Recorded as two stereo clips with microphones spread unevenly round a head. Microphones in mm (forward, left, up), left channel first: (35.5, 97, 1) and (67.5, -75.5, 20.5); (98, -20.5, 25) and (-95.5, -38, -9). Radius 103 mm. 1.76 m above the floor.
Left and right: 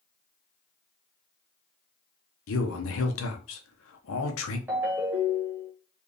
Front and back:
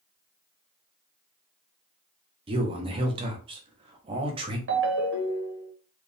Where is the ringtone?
155° right, 1.1 m.